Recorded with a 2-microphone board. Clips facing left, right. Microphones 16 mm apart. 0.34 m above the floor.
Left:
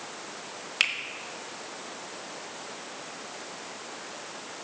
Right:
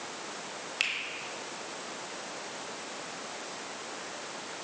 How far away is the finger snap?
About 1.3 m.